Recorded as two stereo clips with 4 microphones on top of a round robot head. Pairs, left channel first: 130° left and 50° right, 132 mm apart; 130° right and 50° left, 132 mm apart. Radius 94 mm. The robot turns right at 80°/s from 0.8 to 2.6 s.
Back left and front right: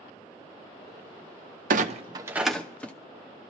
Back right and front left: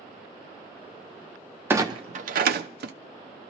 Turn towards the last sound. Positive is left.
turn(degrees=50)